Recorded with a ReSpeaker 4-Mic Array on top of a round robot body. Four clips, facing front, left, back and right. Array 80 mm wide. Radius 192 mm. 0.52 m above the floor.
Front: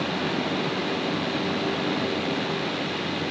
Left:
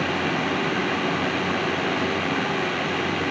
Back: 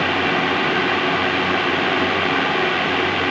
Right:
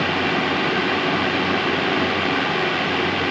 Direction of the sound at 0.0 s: 165° right.